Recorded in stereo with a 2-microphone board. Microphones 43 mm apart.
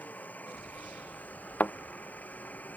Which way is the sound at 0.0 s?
40° left (ahead or behind).